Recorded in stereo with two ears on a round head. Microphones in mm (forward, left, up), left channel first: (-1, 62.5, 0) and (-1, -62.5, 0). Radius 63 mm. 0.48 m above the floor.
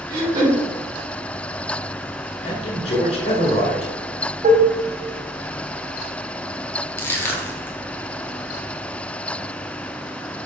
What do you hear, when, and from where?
0.1 s throat clearing: 30° right (ahead or behind), 2.5 m
2.4 s a man speaking: 45° left (ahead or behind), 2.0 m
4.4 s dishes clattering: 55° right (ahead or behind), 2.0 m
7.0 s crushing: 15° left (ahead or behind), 1.4 m